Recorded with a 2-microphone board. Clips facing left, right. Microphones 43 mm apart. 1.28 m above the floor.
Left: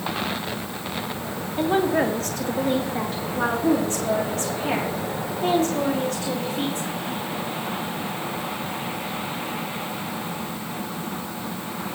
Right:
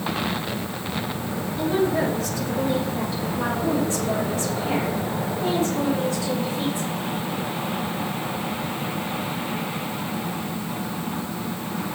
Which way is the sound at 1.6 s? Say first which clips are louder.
Left 2 dB; 45° left (ahead or behind).